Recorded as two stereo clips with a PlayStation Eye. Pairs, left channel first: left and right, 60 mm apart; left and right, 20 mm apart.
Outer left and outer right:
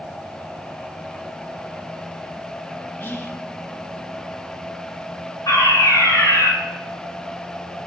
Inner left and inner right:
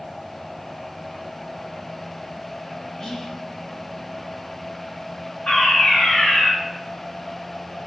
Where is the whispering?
35° left (ahead or behind), 1.5 m.